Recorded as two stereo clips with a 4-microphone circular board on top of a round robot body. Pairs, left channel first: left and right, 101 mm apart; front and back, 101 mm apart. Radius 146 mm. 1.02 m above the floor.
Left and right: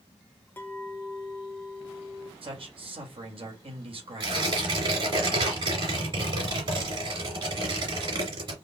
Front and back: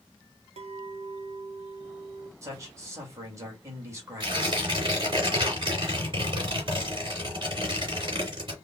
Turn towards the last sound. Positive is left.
turn(degrees=-135)